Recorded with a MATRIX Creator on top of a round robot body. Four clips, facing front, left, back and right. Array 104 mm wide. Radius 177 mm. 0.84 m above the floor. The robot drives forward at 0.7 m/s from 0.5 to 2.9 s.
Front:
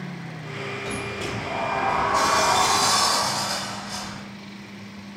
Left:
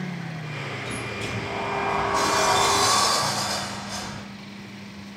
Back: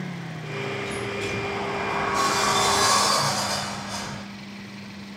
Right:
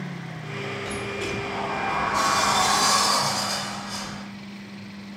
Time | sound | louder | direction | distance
0.8 | a sliding door | right 2 dB, back 1 dB | 10° left | 1.3 m